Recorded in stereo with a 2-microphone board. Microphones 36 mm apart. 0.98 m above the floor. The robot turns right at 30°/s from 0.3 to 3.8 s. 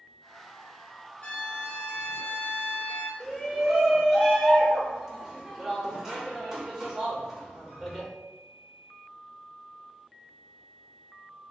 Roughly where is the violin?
Ahead left.